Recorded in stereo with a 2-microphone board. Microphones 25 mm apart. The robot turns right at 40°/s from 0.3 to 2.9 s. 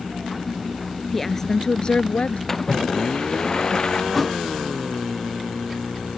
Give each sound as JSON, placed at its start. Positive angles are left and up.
{"t": 1.1, "sound": "a woman speaking", "azimuth_deg": 5}
{"t": 2.5, "sound": "a splash", "side_deg": 15}
{"t": 4.1, "sound": "a thud", "side_deg": 5}